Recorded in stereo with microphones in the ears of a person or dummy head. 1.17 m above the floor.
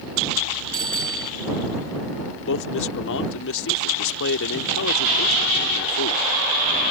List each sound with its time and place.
0.7 s a bicycle bell: 5° left (ahead or behind)
2.4 s a man speaking: 75° left (ahead or behind)